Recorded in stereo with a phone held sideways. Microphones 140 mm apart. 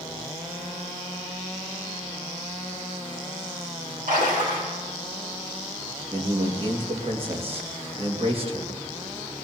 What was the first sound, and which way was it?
A splash, 75° right (ahead or behind).